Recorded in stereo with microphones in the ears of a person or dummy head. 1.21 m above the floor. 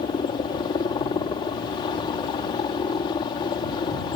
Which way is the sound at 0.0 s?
20° left (ahead or behind).